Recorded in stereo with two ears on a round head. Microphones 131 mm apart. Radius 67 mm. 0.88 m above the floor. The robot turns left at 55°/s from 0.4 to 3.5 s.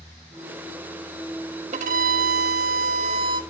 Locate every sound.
1.7 s a violin: 50° right, 1.1 m; by 3.4 s 145° right, 1.1 m